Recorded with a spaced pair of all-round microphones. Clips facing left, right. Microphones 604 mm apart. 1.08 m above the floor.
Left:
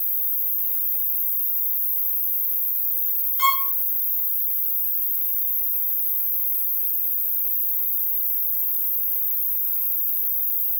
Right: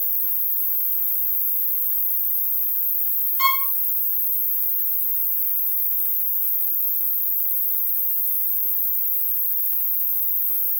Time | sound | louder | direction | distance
0.0 | an insect | even | 45° right (ahead or behind) | 1.2 m
3.4 | a violin | left 1 dB | 45° left (ahead or behind) | 5 m